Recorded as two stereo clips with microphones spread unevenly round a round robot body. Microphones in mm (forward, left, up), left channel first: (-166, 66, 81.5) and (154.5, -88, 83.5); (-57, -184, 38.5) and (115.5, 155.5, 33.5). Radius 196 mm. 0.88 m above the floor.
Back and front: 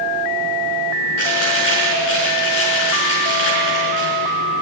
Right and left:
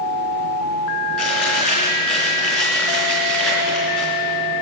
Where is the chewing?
155° left, 5.5 m.